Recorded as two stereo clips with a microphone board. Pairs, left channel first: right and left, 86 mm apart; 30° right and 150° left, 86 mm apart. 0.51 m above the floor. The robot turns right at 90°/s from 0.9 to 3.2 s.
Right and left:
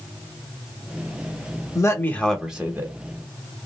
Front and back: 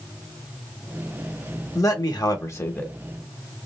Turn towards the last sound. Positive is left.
turn(degrees=70)